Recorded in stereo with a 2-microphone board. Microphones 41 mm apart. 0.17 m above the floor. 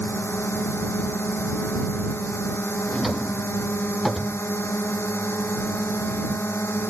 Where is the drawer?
Centre (ahead or behind).